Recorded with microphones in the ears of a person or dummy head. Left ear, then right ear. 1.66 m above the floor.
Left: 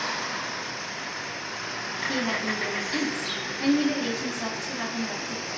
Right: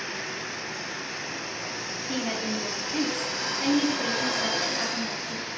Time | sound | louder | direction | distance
2.1 | a woman speaking | left 2 dB | centre (ahead or behind) | 0.6 m